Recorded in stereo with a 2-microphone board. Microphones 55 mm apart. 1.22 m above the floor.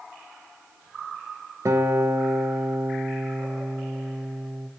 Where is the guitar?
75° right (ahead or behind), 0.7 m.